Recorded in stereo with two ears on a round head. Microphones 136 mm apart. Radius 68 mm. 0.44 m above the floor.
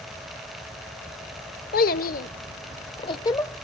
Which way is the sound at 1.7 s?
55° left (ahead or behind).